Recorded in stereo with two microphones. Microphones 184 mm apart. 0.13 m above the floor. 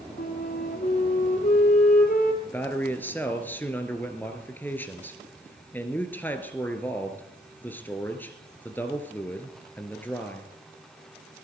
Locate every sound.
0.2 s a flute: 55° left (ahead or behind), 2 m
2.4 s a man speaking: 10° left (ahead or behind), 2 m